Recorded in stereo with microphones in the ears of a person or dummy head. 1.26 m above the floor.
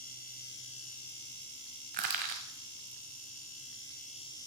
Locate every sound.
1.9 s crushing: 40° right (ahead or behind), 1.3 m